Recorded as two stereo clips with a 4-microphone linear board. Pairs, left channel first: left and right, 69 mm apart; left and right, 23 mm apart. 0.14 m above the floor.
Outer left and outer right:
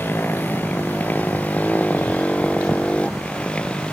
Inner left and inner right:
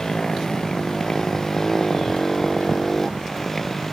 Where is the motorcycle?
30° left (ahead or behind); by 3.9 s 15° left (ahead or behind).